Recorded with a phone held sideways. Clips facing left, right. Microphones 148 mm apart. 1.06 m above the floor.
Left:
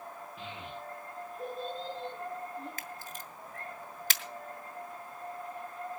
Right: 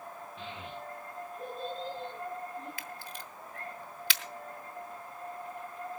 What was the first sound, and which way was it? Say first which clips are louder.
A child speaking: right 1 dB; 5° left (ahead or behind).